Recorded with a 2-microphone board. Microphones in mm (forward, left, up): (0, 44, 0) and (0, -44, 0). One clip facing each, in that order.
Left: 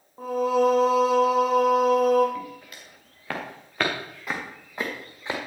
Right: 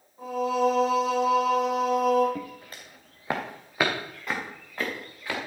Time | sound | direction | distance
0.2 | singing | 40° left (ahead or behind) | 3.5 m
2.4 | footsteps | 40° right (ahead or behind) | 2.5 m